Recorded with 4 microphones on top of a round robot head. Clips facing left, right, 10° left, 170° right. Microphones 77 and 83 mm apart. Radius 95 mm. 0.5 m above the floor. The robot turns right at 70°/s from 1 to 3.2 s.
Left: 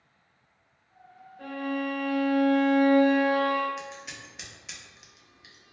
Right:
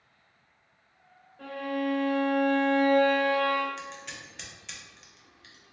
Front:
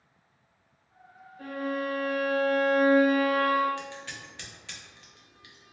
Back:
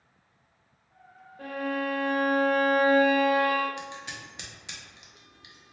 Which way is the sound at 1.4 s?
175° left.